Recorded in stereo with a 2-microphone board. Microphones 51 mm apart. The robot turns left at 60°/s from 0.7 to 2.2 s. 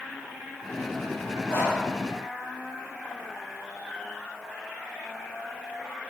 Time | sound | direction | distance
1.5 | breathing | 50° left (ahead or behind) | 6 m